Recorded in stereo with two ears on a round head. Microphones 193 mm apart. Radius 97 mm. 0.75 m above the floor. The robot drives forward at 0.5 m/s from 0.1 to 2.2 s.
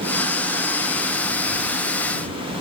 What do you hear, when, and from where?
Only background noise.